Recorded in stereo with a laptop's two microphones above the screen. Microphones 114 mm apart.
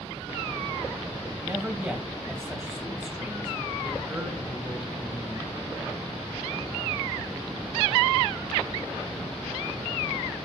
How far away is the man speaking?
About 2.0 m.